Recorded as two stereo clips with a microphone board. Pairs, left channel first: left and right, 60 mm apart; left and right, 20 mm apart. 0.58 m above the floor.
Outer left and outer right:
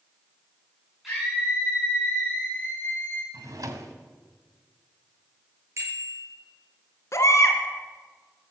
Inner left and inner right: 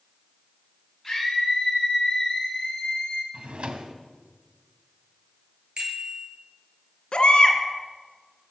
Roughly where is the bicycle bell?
Right.